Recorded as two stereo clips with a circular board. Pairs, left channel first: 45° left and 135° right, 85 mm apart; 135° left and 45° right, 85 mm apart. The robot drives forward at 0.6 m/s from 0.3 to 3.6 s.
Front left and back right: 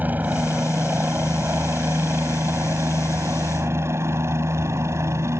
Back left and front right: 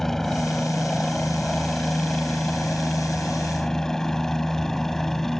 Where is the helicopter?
145° right; by 5.4 s 140° right.